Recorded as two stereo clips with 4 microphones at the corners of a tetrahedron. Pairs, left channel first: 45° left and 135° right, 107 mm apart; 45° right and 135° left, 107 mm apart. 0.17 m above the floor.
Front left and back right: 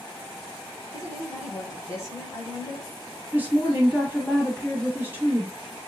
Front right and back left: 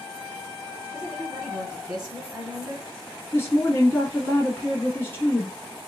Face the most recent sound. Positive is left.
turn(degrees=-85)